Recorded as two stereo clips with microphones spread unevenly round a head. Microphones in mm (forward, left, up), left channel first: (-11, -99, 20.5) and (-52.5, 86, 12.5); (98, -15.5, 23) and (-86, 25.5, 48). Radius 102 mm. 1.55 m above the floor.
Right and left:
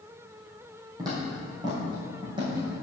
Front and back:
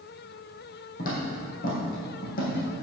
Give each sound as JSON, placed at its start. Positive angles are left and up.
{"t": 1.0, "sound": "footsteps", "azimuth_deg": 30, "distance_m": 3.0}